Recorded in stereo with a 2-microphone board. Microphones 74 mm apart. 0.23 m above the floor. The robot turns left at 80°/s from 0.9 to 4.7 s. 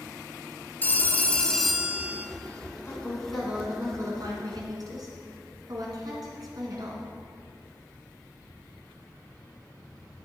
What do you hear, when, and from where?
0.8 s a phone ringing: 65° left, 0.7 m; by 2.3 s 45° right, 0.7 m
2.9 s a woman speaking: 40° left, 1.9 m; by 7.1 s 105° right, 1.9 m